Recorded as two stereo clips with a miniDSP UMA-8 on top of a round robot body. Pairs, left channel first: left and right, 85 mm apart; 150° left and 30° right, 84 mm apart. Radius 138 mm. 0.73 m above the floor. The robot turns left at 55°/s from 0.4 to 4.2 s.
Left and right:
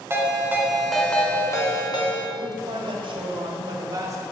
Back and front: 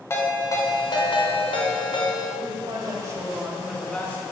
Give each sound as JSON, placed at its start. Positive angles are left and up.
{"t": 0.1, "sound": "a ringtone", "azimuth_deg": -150, "distance_m": 1.6}
{"t": 2.4, "sound": "a man speaking", "azimuth_deg": -45, "distance_m": 1.5}